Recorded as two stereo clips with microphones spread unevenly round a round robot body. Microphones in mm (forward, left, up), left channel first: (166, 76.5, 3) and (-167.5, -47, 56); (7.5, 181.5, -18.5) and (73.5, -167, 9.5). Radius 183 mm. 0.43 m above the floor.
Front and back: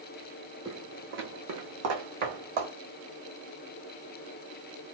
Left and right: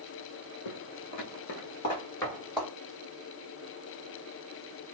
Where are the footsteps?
125° left, 1.2 m; by 2.7 s 160° right, 1.7 m.